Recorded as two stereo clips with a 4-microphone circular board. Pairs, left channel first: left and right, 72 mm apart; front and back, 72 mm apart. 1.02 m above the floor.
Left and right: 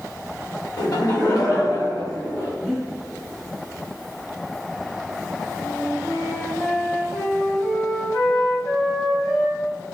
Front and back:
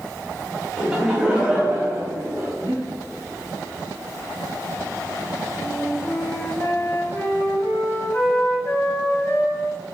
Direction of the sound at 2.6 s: 175° right.